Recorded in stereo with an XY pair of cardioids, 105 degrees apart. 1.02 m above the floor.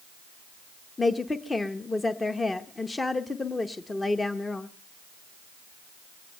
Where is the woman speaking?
20° left, 0.7 m.